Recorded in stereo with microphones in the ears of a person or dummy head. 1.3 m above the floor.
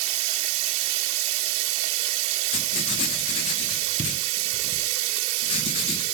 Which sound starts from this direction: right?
Running water, at 0.0 s.